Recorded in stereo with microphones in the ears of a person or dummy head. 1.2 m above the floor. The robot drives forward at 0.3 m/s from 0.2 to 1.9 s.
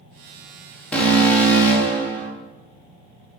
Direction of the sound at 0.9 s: 10° left (ahead or behind).